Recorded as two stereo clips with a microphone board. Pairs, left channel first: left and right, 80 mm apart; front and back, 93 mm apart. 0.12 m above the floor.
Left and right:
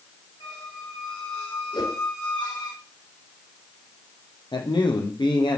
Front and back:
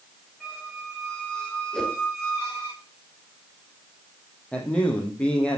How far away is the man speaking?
About 4 m.